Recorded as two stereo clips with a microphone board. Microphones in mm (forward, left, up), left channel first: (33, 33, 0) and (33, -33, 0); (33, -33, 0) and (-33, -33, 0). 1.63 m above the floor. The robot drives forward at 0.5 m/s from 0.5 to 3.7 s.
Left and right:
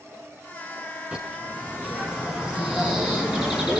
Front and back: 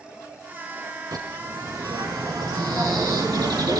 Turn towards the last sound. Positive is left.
turn(degrees=-165)